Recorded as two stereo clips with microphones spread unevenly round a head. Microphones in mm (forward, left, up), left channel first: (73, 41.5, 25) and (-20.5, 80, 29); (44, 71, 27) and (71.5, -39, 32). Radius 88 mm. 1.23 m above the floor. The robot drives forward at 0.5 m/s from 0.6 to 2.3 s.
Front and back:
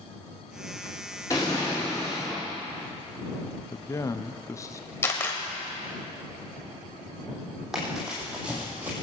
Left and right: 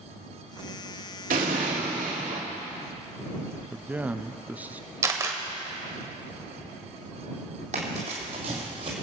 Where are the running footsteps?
115° right, 2.5 m; by 8.9 s 125° right, 2 m.